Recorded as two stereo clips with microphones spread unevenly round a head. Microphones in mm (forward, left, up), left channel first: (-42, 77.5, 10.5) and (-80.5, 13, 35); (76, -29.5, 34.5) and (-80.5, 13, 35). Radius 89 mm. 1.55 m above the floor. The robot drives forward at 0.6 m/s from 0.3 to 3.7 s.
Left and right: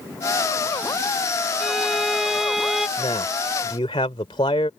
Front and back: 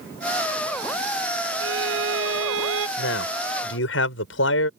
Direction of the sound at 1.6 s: 155° left.